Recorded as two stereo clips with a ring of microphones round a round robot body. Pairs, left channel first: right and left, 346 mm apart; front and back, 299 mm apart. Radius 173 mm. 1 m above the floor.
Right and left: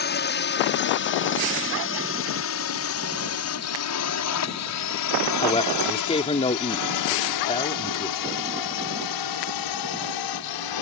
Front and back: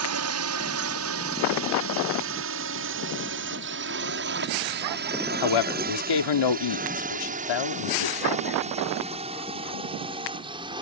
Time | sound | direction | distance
0.0 | a drone | 145° right | ?
5.4 | a man speaking | 15° right | ?